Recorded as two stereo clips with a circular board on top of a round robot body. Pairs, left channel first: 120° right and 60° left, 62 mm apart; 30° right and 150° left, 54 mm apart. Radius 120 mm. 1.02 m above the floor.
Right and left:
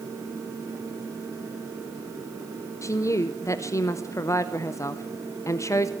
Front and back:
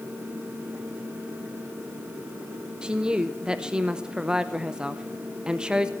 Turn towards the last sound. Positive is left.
turn(degrees=-140)